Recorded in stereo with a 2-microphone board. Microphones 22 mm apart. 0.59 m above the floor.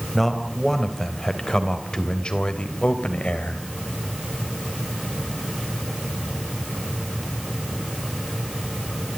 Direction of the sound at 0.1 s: 5° left (ahead or behind).